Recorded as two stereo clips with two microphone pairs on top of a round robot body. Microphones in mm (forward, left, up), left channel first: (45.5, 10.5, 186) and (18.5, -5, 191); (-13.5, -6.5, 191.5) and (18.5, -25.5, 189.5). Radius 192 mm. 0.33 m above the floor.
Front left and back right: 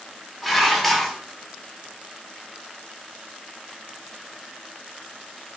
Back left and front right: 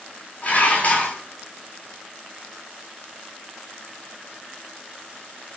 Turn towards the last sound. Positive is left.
turn(degrees=110)